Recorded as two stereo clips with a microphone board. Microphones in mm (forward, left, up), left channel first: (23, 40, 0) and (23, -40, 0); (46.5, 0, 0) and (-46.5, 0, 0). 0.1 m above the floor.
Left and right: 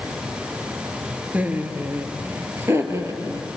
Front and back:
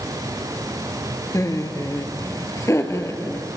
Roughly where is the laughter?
Ahead right.